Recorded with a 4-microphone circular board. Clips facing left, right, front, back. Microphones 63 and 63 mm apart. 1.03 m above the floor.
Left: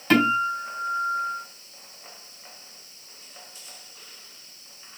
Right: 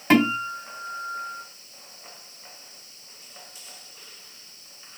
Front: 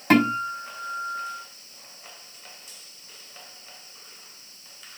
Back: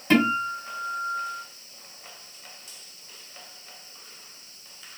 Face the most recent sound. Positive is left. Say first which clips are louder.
# even, front 1 dB
turn(degrees=-25)